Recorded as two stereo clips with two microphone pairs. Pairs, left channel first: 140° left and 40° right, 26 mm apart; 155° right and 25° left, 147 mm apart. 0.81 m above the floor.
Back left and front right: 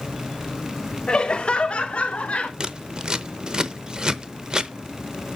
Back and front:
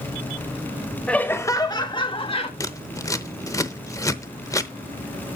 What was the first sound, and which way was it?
Laughter, 125° left.